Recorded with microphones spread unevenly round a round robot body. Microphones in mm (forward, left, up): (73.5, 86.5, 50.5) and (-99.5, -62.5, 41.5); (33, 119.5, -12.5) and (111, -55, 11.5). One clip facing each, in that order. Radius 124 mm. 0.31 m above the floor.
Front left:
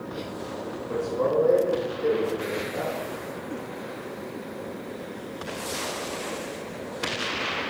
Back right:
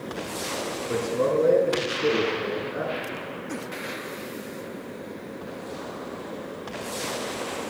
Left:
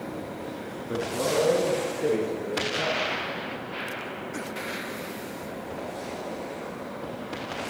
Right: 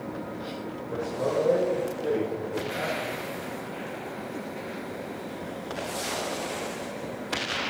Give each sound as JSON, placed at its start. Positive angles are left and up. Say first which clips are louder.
{"t": 0.9, "sound": "a man speaking", "louder": "back right 1 dB, left 1 dB", "azimuth_deg": 155, "distance_m": 5.0}